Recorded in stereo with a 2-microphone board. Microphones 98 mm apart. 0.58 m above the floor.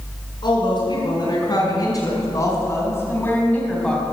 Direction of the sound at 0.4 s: 50° left (ahead or behind).